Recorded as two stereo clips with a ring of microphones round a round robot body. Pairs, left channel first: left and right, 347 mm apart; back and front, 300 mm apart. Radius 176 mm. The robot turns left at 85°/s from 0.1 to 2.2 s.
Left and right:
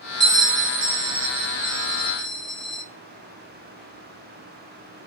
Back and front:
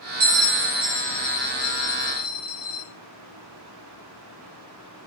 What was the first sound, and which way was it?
A bell, 10° right.